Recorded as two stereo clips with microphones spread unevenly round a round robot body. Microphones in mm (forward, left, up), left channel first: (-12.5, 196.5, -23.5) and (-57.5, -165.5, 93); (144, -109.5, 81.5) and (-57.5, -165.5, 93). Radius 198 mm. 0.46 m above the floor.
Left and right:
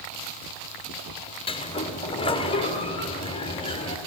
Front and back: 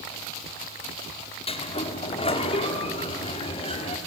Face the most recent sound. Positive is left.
turn(degrees=50)